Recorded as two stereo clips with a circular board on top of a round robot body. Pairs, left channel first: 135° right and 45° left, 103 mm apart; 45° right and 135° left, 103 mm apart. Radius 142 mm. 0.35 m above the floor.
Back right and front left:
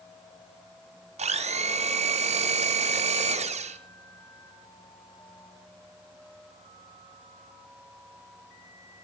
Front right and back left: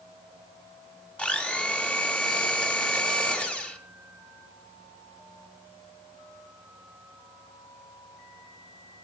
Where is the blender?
35° left, 0.9 m.